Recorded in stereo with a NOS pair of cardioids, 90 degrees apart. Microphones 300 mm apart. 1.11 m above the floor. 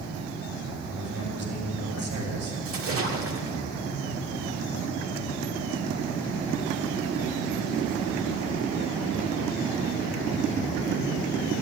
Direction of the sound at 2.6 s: 45° right.